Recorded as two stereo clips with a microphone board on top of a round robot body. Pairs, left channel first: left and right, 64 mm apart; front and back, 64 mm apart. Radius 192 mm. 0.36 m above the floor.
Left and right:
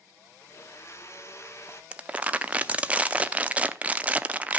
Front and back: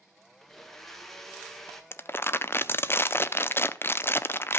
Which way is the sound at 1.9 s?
30° right.